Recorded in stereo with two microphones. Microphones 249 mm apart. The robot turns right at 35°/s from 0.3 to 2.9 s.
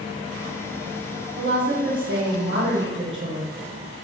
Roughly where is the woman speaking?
Behind right.